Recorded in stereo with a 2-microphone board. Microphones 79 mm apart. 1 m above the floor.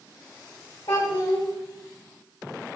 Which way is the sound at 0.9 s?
65° left (ahead or behind).